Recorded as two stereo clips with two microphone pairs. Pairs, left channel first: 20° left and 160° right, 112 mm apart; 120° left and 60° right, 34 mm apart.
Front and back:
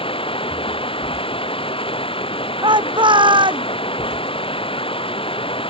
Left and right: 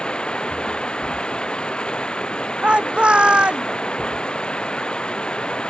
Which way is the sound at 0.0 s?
60° left.